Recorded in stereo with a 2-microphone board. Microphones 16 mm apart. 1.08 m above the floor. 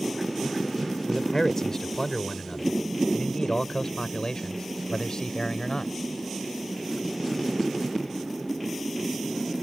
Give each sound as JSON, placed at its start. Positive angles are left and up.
{"t": 1.1, "sound": "a man speaking", "side_deg": 35}